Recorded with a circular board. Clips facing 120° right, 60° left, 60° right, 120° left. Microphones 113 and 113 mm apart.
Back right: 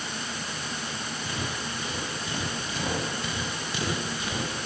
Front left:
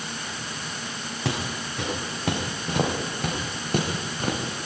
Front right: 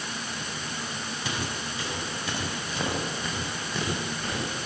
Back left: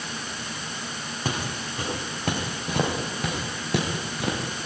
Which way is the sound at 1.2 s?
75° left.